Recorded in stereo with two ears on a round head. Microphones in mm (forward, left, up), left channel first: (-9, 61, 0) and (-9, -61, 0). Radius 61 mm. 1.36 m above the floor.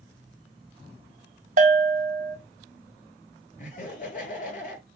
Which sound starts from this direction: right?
A bell, at 1.6 s.